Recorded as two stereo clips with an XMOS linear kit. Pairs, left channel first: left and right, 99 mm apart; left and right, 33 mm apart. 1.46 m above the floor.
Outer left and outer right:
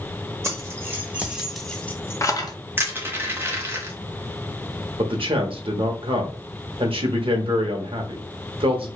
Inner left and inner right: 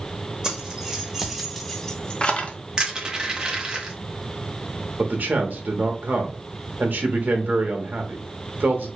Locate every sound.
0.4 s keys jangling: 25° right (ahead or behind), 1.1 m; by 2.6 s 40° left (ahead or behind), 0.7 m
2.8 s crushing: 25° right (ahead or behind), 0.9 m
5.0 s a man speaking: 65° right (ahead or behind), 0.9 m